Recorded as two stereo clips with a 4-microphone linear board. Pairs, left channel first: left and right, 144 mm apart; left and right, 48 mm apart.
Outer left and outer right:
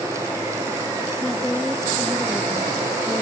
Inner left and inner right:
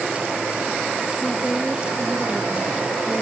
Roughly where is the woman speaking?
Centre.